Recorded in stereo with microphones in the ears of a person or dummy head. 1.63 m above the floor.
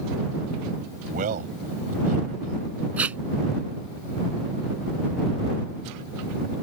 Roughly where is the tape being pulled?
Centre.